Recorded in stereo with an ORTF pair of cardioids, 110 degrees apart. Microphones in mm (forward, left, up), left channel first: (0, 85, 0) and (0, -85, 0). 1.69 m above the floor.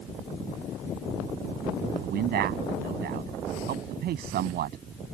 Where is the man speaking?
65° right.